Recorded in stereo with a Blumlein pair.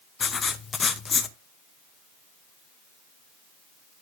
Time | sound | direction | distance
0.2 | writing | 15° left | 0.9 m